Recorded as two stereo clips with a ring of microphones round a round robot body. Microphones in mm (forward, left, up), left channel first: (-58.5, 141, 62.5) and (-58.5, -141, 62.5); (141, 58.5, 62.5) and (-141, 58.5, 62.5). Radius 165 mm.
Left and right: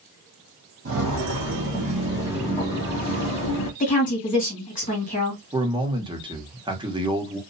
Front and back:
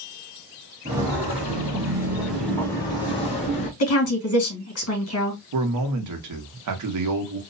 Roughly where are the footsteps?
Behind right.